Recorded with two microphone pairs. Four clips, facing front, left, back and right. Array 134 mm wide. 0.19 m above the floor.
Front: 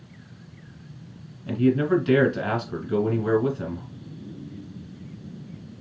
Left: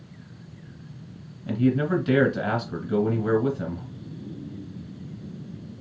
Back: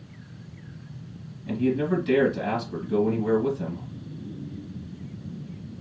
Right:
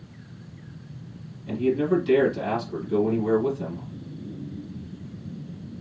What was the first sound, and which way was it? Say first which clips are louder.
A man speaking: even, front 3 dB; 50° left.